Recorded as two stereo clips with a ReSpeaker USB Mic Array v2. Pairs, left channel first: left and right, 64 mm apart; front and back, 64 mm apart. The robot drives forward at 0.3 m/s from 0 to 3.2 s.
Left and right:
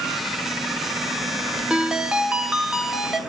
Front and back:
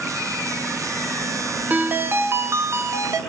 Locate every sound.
1.7 s a ringtone: 150° right, 0.6 m; by 3.2 s 170° right, 0.9 m